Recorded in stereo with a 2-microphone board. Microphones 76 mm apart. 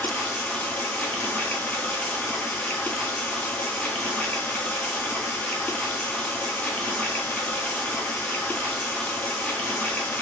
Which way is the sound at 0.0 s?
25° left (ahead or behind).